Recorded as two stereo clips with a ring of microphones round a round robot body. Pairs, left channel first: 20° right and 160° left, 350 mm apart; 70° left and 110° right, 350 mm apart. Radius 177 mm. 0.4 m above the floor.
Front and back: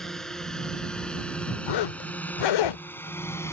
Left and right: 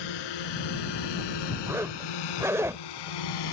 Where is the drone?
65° left; by 3.5 s 60° left.